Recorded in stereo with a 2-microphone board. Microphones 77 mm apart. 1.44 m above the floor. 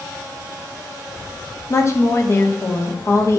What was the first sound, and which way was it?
A woman speaking, 40° left (ahead or behind).